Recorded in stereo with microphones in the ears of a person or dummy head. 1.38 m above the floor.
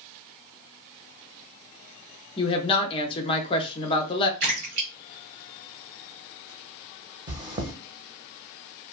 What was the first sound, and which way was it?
A woman speaking, 30° left (ahead or behind).